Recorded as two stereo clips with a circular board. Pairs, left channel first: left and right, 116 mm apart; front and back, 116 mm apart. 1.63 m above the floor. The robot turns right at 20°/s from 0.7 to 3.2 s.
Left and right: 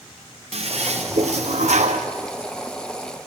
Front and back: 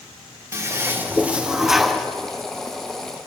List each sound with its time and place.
0.5 s a toilet flushing: 115° right, 1.2 m; by 2.1 s 85° right, 1.2 m